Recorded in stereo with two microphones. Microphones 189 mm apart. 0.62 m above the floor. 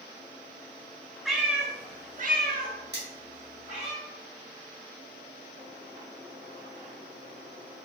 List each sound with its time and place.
1.2 s a cat meowing: centre (ahead or behind), 0.8 m; by 3.9 s 40° right (ahead or behind), 1.4 m
2.9 s cutlery clinking: 60° right (ahead or behind), 1.4 m